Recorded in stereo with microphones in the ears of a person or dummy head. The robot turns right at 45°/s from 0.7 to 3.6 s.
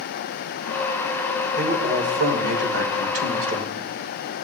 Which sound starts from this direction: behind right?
A man speaking, at 1.6 s.